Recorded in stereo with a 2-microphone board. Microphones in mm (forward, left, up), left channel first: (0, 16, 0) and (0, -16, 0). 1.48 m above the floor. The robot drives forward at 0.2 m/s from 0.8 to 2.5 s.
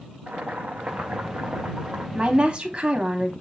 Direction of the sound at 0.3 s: 60° right (ahead or behind).